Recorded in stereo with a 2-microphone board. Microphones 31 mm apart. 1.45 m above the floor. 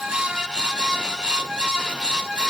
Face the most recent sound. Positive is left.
No sound to turn to.